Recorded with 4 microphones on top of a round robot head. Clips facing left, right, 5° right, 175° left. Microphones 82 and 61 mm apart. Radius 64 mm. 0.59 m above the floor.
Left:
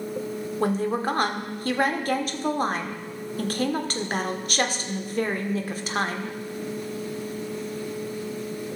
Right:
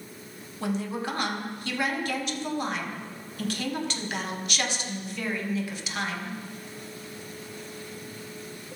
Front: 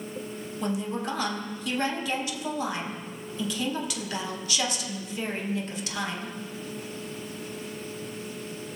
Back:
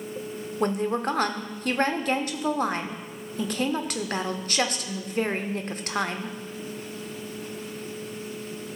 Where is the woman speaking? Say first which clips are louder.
Left 5 dB, back 5 dB; 135° left, 1.4 m.